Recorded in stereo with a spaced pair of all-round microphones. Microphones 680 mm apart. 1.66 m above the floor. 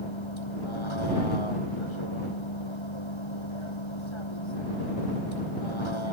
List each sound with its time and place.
0.0 s a vehicle: 40° left (ahead or behind)